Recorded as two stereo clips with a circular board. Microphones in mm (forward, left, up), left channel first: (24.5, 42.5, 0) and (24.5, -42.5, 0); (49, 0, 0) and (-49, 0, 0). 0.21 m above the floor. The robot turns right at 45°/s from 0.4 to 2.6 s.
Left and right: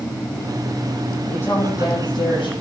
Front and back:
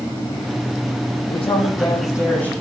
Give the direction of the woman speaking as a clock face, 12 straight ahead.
11 o'clock.